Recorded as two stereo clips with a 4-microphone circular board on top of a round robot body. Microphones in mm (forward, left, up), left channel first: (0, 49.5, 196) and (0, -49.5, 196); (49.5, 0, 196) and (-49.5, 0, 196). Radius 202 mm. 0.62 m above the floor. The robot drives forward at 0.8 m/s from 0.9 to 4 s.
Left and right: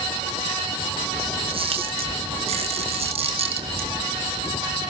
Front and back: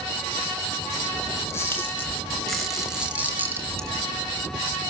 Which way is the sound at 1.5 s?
65° right.